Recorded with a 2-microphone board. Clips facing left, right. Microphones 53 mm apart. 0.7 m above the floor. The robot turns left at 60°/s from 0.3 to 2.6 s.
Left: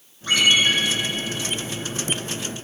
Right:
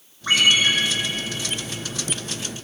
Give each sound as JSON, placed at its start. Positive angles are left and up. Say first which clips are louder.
{"t": 0.3, "sound": "a ringtone", "louder": "even", "side_deg": -40, "distance_m": 5.5}